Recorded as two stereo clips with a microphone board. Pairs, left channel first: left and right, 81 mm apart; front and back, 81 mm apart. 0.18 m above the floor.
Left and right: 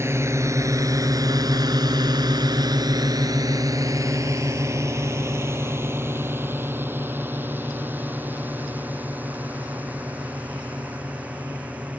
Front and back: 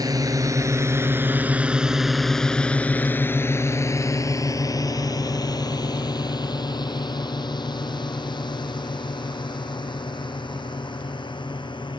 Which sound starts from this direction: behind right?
A drone, at 0.0 s.